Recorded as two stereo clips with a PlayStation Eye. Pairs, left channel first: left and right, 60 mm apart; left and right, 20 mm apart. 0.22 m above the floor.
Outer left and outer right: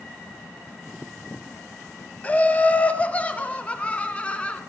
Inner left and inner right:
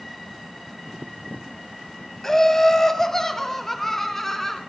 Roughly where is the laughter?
Left.